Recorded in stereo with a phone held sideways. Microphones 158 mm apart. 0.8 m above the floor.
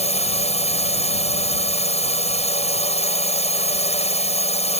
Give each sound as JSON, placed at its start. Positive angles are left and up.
{"t": 0.0, "sound": "a drone", "side_deg": 45}